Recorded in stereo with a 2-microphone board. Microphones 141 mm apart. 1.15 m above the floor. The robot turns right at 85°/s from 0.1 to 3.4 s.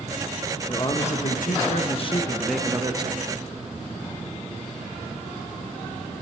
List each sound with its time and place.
0.7 s a man speaking: 20° left, 0.8 m; by 3.3 s 120° right, 0.8 m